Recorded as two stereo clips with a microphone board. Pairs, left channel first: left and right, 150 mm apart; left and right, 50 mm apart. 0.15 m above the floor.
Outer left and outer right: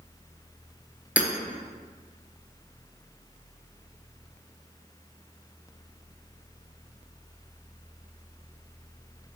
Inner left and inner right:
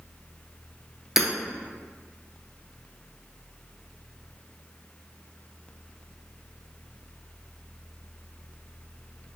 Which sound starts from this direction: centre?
Hammering, at 1.2 s.